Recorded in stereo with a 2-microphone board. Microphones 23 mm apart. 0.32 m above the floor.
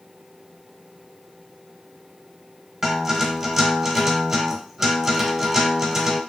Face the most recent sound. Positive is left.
turn(degrees=-15)  # may be behind; listen again after turning